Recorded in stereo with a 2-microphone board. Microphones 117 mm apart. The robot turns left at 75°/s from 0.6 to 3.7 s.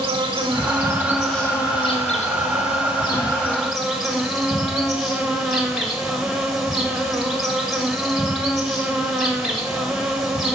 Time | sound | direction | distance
0.0 | an insect | 130° right | 1.7 m